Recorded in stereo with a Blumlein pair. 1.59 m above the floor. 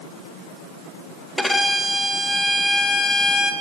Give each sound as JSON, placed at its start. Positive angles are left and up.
{"t": 1.4, "sound": "a violin", "azimuth_deg": 5, "distance_m": 1.9}